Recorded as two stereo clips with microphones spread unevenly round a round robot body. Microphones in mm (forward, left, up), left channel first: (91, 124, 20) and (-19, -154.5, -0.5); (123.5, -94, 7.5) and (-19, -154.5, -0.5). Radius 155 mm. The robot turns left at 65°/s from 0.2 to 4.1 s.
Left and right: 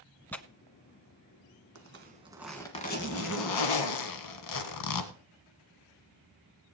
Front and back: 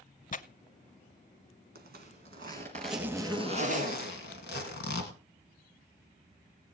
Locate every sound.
0.3 s tearing paper: 15° right, 0.8 m; by 0.4 s 25° right, 0.8 m
1.8 s a zipper: 155° right, 1.6 m; by 5.1 s 55° left, 1.6 m